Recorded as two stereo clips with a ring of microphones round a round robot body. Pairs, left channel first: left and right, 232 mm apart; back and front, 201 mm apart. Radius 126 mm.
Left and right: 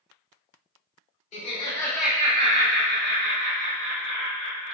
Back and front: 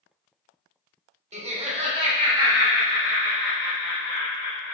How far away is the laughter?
About 1.1 m.